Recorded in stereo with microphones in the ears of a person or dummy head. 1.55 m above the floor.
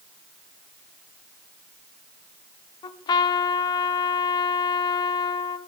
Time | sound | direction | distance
2.8 | a trumpet | 25° left (ahead or behind) | 0.6 m